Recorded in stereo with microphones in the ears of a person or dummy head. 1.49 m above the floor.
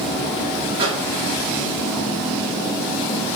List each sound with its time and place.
0.8 s a microwave: 25° right (ahead or behind), 1.4 m